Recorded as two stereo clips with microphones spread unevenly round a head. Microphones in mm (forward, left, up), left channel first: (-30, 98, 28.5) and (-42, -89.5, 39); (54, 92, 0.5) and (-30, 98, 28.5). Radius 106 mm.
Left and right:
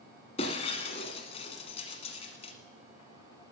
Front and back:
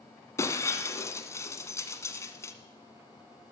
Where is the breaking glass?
55° left, 1.3 m.